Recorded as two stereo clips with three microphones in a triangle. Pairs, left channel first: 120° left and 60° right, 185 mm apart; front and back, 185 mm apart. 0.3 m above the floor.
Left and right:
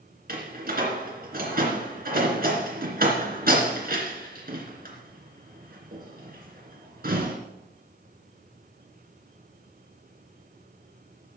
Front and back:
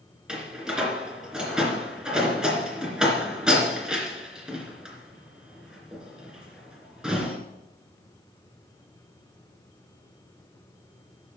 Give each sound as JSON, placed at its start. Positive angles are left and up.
{"t": 0.3, "sound": "a door slam", "azimuth_deg": -95, "distance_m": 2.5}